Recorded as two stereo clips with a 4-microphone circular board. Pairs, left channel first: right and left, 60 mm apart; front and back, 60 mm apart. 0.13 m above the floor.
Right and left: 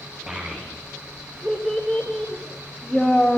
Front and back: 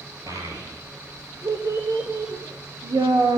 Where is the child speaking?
155° left, 6 m; by 3.4 s 170° right, 6.5 m.